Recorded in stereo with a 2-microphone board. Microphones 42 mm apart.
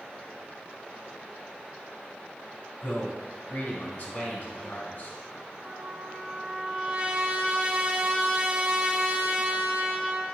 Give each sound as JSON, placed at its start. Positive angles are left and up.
{"t": 2.8, "sound": "a man speaking", "side_deg": 35, "distance_m": 1.6}
{"t": 5.6, "sound": "a trumpet", "side_deg": -30, "distance_m": 0.7}